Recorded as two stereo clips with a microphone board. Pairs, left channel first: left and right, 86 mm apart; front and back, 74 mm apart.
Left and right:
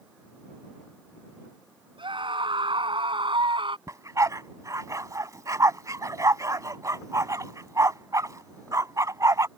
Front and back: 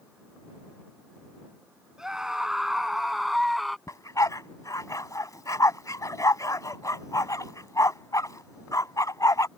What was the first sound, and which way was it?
A scream, 100° right.